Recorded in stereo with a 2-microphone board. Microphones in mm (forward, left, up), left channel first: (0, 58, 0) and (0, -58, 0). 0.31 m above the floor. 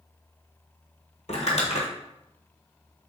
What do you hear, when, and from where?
1.3 s crumpling: 70° left (ahead or behind), 1.1 m